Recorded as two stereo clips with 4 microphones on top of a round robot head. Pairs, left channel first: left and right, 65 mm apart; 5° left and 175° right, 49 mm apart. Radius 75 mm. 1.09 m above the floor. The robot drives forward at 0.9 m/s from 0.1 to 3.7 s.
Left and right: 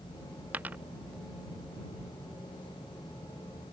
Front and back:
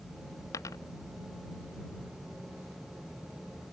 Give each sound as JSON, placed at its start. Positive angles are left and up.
{"t": 0.5, "sound": "a dropped coin", "azimuth_deg": -25}